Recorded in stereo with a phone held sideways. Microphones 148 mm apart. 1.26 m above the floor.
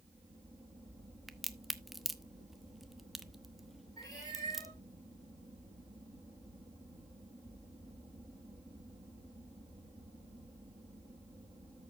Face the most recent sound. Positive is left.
turn(degrees=25)  # may be behind; listen again after turning